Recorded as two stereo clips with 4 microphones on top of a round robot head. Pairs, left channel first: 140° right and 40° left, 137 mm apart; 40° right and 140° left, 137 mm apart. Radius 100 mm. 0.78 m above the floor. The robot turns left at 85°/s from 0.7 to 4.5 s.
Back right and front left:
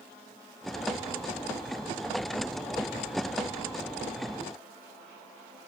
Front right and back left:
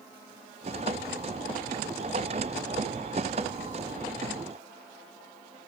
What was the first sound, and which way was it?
Only background noise.